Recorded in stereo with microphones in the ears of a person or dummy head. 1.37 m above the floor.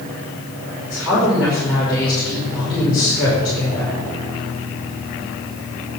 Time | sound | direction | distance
0.8 | a woman speaking | 5° right (ahead or behind) | 6 m